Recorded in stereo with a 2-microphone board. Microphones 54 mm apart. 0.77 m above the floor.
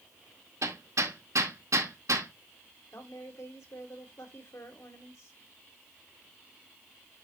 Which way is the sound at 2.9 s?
65° left (ahead or behind).